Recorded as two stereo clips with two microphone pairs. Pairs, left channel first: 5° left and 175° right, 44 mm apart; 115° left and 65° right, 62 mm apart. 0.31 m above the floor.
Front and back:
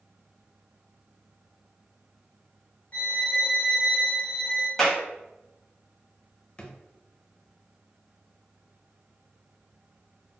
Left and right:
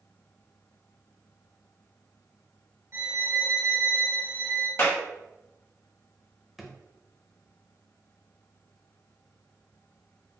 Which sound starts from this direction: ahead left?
A drawer, at 6.6 s.